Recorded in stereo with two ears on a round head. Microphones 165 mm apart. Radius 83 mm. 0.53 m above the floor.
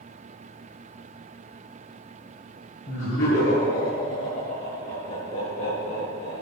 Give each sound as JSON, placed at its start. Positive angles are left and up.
{"t": 2.9, "sound": "laughter", "side_deg": 50, "distance_m": 5.5}